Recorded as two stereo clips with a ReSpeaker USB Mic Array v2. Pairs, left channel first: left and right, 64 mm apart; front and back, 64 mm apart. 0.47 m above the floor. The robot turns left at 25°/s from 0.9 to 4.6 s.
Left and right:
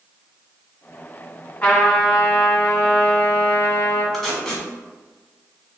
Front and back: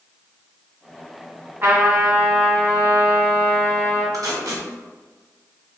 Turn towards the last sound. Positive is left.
turn(degrees=170)